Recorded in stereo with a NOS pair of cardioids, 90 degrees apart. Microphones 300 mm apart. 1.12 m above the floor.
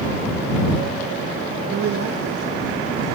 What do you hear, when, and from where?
1.7 s a woman speaking: 40° right; by 3.0 s 75° right